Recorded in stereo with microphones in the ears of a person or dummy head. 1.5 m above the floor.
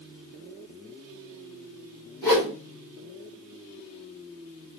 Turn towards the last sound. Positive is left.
turn(degrees=15)  # may be behind; listen again after turning